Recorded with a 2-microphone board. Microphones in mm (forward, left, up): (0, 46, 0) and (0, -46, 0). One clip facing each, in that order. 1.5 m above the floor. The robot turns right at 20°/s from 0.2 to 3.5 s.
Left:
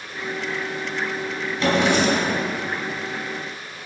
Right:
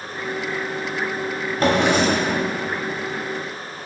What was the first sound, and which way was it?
A drawer, 45° right (ahead or behind).